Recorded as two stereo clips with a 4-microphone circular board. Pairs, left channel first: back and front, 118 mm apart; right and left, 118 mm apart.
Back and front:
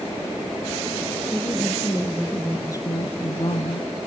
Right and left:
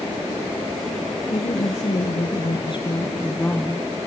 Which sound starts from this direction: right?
A woman speaking, at 1.3 s.